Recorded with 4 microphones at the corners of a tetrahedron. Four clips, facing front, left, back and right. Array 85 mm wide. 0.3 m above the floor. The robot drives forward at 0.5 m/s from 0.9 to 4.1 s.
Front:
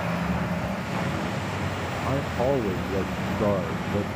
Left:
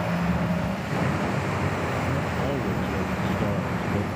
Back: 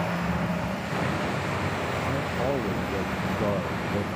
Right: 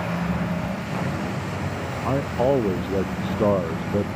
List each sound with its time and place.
2.0 s a man speaking: 80° right; by 4.0 s 85° right